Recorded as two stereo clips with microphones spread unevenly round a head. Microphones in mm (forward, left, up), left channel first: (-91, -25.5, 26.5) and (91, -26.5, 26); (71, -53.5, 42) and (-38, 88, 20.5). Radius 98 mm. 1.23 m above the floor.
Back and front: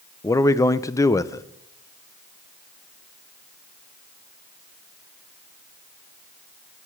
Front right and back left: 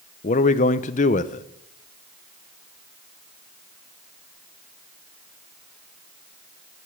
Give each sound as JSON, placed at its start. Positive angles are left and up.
{"t": 0.2, "sound": "a man speaking", "azimuth_deg": -105, "distance_m": 0.5}